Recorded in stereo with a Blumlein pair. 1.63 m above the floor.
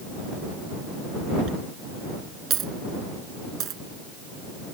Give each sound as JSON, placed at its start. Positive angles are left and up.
{"t": 1.5, "sound": "a dropped coin", "azimuth_deg": -30}